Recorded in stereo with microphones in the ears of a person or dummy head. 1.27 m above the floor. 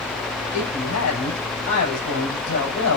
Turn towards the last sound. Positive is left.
turn(degrees=85)